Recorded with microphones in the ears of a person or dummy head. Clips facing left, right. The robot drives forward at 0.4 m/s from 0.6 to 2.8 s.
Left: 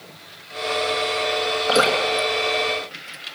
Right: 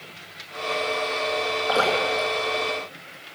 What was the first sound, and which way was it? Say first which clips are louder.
Dripping: left 3 dB; 30° left (ahead or behind).